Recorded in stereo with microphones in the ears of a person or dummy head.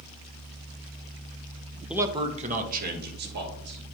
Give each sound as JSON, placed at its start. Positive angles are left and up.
{"t": 1.9, "sound": "a man speaking", "side_deg": -5, "distance_m": 0.7}